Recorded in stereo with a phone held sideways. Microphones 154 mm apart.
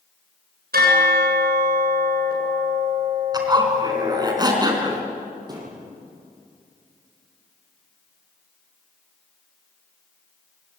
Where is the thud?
25° right (ahead or behind), 9 m.